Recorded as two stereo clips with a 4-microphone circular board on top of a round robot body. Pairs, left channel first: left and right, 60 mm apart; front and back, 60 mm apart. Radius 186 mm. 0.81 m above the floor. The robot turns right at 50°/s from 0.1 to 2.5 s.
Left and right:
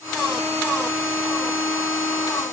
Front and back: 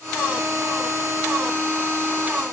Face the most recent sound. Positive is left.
No sound to turn to.